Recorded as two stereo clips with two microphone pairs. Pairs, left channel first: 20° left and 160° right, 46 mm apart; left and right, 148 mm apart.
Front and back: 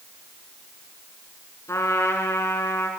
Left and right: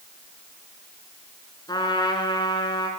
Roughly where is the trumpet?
Ahead left.